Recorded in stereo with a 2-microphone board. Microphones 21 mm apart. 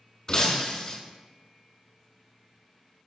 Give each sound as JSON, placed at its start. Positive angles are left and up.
{"t": 0.3, "sound": "breaking glass", "side_deg": 40, "distance_m": 0.8}